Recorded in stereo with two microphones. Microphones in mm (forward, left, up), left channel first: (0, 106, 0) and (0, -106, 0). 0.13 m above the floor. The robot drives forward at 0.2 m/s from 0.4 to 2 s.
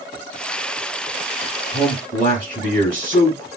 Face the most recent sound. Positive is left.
turn(degrees=25)  # may be behind; listen again after turning